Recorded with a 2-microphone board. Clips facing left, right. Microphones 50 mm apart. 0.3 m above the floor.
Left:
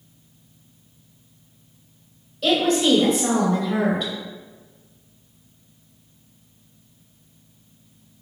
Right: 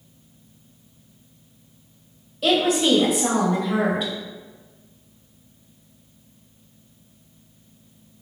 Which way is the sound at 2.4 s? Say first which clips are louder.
Even; 10° right (ahead or behind).